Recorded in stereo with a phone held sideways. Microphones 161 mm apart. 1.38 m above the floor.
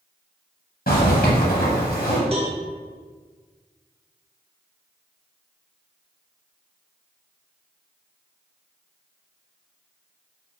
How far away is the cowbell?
About 0.6 m.